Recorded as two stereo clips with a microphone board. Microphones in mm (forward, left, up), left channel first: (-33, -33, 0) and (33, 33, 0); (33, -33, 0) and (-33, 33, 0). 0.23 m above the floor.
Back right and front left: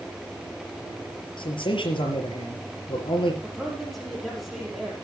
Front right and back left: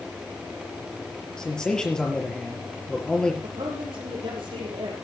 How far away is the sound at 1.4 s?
About 5 m.